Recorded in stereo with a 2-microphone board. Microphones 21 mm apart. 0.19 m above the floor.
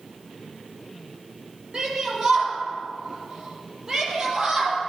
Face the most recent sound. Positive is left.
turn(degrees=-30)  # may be behind; listen again after turning